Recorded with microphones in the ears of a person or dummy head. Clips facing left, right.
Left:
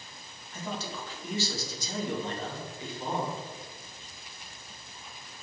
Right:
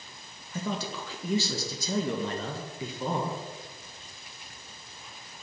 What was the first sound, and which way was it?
A man speaking, 70° right (ahead or behind).